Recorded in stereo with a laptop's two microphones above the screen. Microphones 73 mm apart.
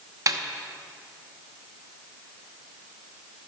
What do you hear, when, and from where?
0.3 s a snare drum: 50° right (ahead or behind), 0.8 m